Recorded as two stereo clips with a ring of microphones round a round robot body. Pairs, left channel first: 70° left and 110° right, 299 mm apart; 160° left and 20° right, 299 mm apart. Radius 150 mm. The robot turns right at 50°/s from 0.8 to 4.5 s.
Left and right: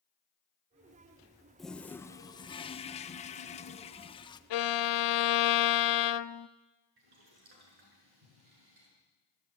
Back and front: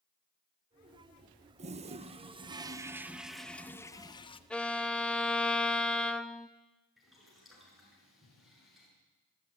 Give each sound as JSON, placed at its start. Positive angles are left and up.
{"t": 1.6, "sound": "a toilet flushing", "azimuth_deg": -20, "distance_m": 0.9}
{"t": 4.5, "sound": "a violin", "azimuth_deg": 70, "distance_m": 0.6}
{"t": 7.0, "sound": "boiling", "azimuth_deg": -110, "distance_m": 7.0}